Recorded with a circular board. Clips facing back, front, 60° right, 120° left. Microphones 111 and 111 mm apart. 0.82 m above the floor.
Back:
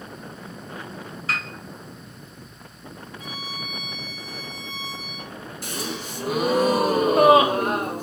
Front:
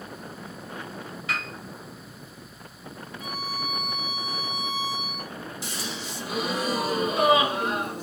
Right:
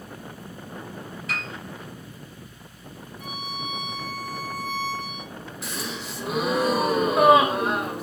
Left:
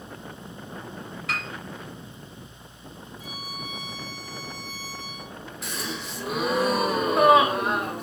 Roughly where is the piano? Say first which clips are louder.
Back 2 dB, left 1 dB; behind left.